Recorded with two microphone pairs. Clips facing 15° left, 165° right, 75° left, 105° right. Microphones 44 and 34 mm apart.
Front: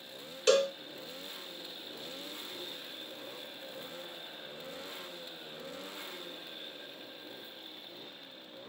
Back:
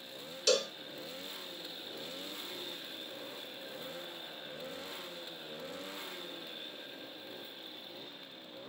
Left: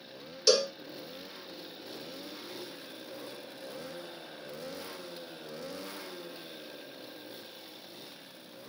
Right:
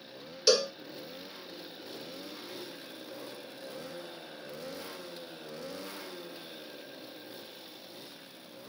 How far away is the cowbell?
About 0.5 m.